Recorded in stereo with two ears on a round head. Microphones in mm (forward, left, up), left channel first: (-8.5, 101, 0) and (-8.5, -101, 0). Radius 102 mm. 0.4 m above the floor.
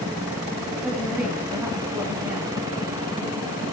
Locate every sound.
0.8 s a woman speaking: 10° right (ahead or behind), 3 m